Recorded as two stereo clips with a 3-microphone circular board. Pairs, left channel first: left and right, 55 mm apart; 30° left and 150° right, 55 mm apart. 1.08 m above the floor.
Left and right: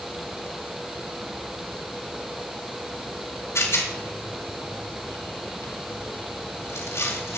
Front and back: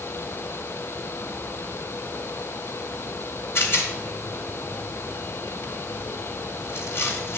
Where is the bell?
No bell in this recording.